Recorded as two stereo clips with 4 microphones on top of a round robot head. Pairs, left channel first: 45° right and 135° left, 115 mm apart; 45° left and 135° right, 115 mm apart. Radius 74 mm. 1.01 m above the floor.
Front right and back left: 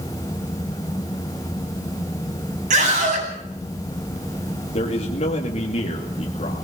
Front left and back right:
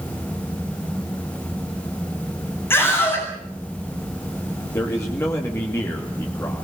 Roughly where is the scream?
Behind left.